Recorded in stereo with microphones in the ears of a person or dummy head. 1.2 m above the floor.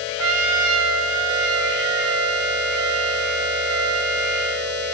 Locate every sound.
0.2 s a trumpet: 75° right (ahead or behind), 1.4 m